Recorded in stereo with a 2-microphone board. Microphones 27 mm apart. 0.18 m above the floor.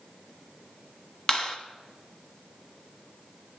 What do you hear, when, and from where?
1.3 s a clap: 25° left (ahead or behind), 1.2 m